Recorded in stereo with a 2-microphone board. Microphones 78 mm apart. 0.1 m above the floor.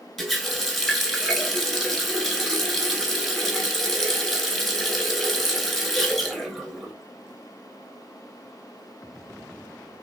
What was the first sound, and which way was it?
A running tap, centre (ahead or behind).